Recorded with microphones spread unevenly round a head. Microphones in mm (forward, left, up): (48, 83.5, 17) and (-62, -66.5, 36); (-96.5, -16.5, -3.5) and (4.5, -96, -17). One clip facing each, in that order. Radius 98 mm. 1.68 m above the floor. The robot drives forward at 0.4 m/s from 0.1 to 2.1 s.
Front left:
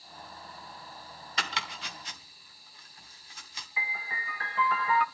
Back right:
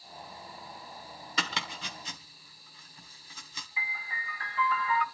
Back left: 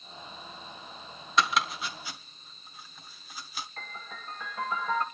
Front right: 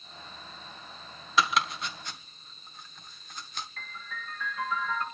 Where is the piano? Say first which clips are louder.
Front left 3 dB, even; 90° left, 2 m.